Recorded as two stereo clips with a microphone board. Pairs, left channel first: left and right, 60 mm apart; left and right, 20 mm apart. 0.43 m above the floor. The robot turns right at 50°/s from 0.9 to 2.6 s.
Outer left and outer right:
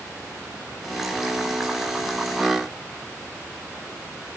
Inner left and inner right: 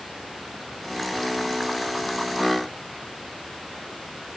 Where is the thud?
I don't hear a thud.